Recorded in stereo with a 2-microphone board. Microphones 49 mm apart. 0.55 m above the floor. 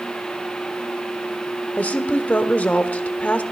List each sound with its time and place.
1.8 s a woman speaking: 35° left (ahead or behind), 1.4 m